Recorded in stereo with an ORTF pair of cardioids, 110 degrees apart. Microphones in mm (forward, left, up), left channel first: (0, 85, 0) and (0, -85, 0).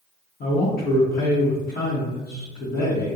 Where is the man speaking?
55° left, 0.8 m.